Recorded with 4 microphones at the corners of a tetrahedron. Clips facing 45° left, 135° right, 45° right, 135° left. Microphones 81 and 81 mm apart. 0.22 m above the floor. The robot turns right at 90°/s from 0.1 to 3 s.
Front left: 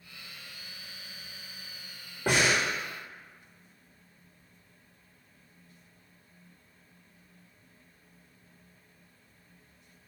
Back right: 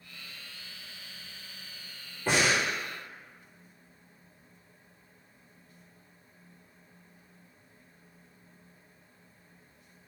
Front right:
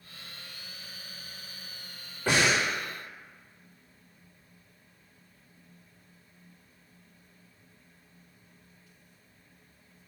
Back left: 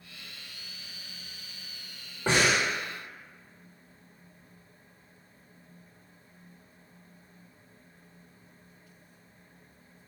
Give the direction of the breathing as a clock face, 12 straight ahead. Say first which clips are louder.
Even, even; 10 o'clock.